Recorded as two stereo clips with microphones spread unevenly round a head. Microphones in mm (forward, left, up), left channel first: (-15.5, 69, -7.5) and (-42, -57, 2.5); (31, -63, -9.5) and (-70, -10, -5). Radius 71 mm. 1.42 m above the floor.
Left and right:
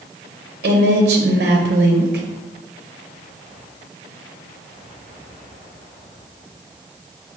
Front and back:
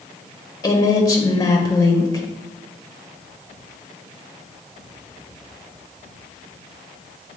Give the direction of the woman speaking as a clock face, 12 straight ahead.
3 o'clock.